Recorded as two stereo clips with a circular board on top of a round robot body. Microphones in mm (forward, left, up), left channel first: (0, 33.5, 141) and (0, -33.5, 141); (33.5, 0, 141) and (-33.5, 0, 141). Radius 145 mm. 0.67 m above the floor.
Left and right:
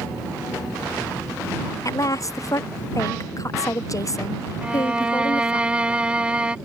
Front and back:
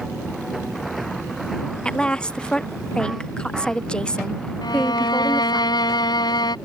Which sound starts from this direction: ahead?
A violin, at 4.6 s.